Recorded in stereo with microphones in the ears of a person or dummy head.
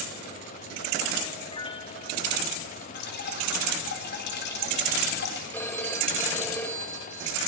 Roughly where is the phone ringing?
Centre.